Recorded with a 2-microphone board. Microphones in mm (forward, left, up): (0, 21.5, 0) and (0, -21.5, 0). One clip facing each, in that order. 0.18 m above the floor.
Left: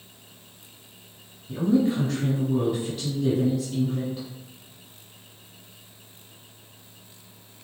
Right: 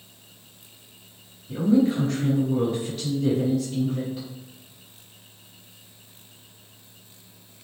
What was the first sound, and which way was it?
A woman speaking, centre (ahead or behind).